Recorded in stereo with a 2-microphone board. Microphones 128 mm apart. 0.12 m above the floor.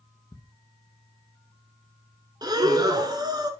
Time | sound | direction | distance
0.3 | ticking | 35° left (ahead or behind) | 1.1 m
2.4 | breathing | 30° right (ahead or behind) | 0.9 m